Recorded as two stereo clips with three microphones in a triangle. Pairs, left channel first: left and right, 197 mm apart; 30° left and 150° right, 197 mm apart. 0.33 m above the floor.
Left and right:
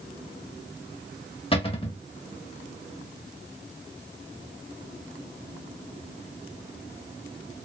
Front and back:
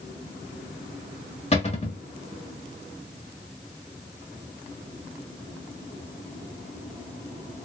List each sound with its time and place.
1.5 s a cupboard door: 55° left, 1.0 m